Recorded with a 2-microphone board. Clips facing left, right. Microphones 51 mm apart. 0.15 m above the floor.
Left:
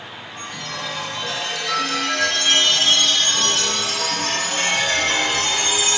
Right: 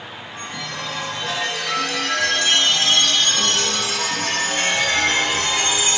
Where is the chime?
25° right (ahead or behind), 2.5 m.